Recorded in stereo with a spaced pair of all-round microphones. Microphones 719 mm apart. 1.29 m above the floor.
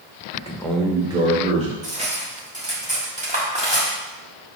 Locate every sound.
0.3 s a man speaking: 15° left (ahead or behind), 0.6 m; by 1.7 s 10° right (ahead or behind), 2.5 m
1.8 s cutlery clinking: 10° right (ahead or behind), 1.5 m